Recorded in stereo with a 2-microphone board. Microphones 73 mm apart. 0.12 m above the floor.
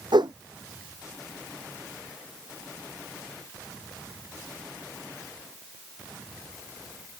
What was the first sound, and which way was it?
A whoosh, 75° right (ahead or behind).